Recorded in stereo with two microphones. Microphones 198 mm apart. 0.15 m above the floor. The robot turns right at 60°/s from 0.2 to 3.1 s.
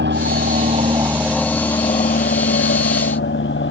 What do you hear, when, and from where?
0.0 s an aircraft: 65° right (ahead or behind); by 3.7 s 75° left (ahead or behind)